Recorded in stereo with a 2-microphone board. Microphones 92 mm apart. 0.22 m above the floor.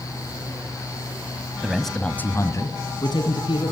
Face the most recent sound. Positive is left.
turn(degrees=60)  # may be behind; listen again after turning